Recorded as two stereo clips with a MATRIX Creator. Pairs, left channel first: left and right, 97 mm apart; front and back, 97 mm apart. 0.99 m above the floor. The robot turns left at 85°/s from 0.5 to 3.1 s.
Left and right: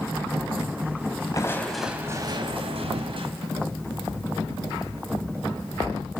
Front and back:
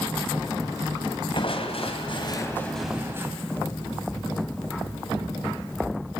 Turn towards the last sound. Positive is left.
turn(degrees=-115)